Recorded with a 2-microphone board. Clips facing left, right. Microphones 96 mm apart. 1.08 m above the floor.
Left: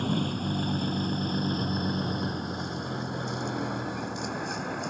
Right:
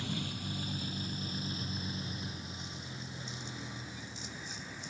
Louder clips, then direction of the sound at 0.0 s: Left 11 dB; 50° left (ahead or behind).